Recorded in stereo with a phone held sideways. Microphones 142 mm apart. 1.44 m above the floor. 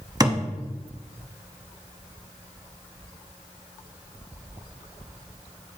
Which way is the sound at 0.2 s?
30° right (ahead or behind).